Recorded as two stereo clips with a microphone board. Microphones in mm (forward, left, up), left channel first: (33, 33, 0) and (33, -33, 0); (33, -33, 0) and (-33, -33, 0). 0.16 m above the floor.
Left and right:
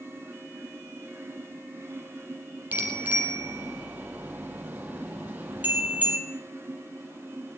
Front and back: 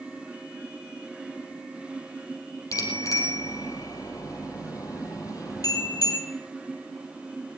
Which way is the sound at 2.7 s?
25° right.